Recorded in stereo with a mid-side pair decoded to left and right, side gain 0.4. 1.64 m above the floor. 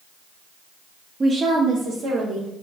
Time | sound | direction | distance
1.2 | a woman speaking | 35° right | 0.8 m